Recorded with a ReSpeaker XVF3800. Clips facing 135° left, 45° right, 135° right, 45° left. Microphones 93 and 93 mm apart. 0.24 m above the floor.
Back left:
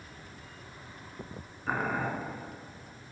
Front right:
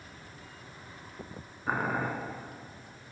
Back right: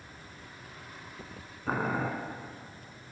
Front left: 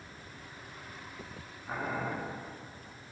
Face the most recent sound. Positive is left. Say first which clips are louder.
# even, back right 5 dB
turn(degrees=-125)